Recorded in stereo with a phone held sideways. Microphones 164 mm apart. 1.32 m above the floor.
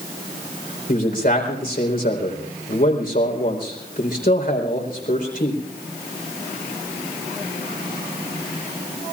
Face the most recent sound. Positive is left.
turn(degrees=60)  # may be behind; listen again after turning